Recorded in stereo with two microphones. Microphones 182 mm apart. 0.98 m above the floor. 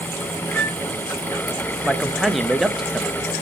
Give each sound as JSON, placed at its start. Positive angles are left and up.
{"t": 0.5, "sound": "a flute", "side_deg": -55, "distance_m": 5.0}
{"t": 1.8, "sound": "a man speaking", "side_deg": 0, "distance_m": 0.8}